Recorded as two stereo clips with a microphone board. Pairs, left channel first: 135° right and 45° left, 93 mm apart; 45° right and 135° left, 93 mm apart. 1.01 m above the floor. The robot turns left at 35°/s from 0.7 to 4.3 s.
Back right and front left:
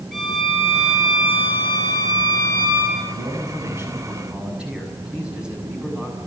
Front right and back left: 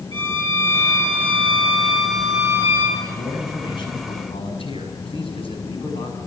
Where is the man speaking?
10° left, 6.5 m; by 6.2 s 35° right, 6.5 m.